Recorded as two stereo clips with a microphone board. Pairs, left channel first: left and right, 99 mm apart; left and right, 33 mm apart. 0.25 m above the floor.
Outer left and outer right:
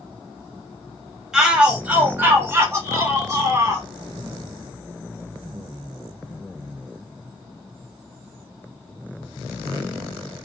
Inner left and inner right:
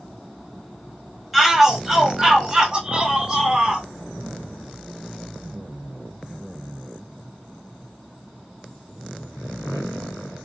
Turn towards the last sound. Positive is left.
turn(degrees=-35)  # may be behind; listen again after turning